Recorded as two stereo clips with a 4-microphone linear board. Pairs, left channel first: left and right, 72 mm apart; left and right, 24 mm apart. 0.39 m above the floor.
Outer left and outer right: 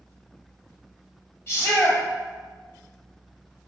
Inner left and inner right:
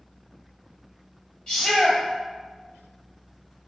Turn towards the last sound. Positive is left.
turn(degrees=40)  # may be behind; listen again after turning